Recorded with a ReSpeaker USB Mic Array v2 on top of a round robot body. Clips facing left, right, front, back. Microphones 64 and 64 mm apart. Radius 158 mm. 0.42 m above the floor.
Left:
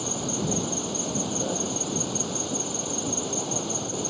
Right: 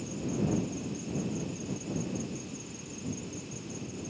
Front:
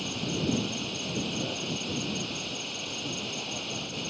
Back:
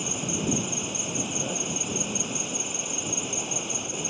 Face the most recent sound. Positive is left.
turn(degrees=105)